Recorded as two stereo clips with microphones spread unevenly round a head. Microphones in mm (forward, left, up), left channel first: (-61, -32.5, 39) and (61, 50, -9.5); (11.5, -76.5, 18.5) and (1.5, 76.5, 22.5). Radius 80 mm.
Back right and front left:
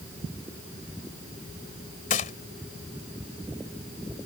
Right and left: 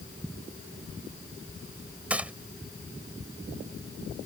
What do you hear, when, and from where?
2.1 s a gunshot: 175° left